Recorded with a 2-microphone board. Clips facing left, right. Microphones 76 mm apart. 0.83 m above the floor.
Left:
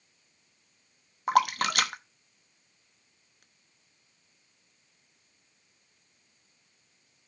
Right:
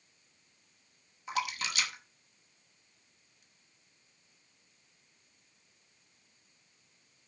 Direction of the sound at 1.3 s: 60° left (ahead or behind).